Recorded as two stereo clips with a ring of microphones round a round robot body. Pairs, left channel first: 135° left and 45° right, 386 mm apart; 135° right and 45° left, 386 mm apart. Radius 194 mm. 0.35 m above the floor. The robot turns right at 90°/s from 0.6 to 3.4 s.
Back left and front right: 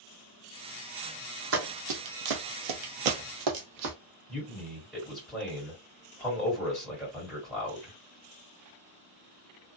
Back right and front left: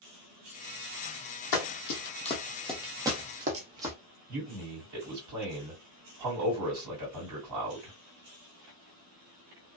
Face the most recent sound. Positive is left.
turn(degrees=45)